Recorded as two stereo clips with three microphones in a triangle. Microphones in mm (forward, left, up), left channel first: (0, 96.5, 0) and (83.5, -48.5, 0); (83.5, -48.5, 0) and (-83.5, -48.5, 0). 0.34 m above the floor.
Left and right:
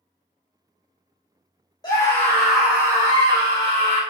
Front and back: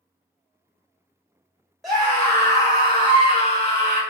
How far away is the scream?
About 1.0 m.